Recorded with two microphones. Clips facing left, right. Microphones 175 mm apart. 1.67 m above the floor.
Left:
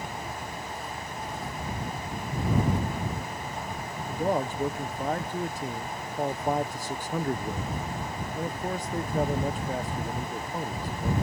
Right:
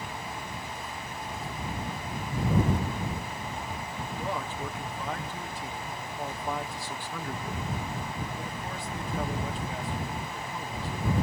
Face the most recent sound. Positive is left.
turn(degrees=45)  # may be behind; listen again after turning